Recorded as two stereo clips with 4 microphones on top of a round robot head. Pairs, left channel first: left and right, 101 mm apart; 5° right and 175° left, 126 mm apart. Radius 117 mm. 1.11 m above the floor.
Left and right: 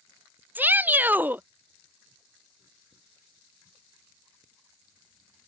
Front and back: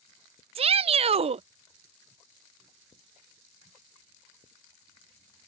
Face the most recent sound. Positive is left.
turn(degrees=-160)